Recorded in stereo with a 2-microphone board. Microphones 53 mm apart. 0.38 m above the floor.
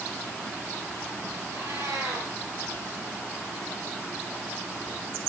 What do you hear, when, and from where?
1.5 s a cat meowing: 70° right (ahead or behind), 4.5 m